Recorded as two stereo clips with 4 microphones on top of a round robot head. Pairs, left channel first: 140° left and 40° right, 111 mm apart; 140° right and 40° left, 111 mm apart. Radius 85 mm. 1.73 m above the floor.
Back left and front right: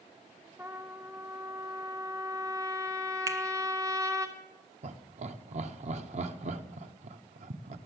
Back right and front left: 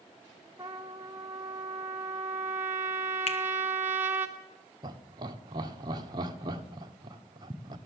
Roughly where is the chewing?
No chewing in this recording.